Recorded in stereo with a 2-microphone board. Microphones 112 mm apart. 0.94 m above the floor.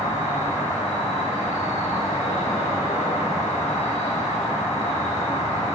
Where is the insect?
80° left, 1.2 m.